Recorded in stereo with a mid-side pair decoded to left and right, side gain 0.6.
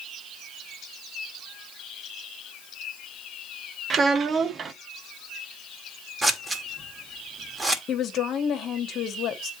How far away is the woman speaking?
About 1.4 m.